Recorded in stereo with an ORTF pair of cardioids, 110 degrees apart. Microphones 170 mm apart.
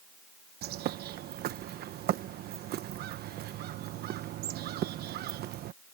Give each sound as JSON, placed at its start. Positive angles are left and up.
{"t": 0.6, "sound": "a bird", "azimuth_deg": -65}